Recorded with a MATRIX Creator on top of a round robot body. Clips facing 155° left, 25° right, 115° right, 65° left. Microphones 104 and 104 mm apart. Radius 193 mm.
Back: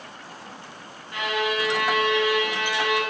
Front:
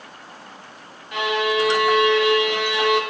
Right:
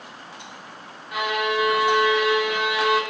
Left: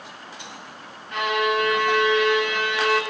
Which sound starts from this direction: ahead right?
A violin, at 1.1 s.